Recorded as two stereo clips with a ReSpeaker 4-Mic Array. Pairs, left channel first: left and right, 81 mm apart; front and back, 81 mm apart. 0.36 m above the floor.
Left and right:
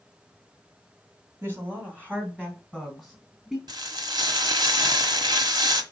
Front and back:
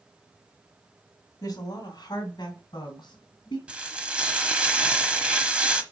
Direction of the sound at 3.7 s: 105° right.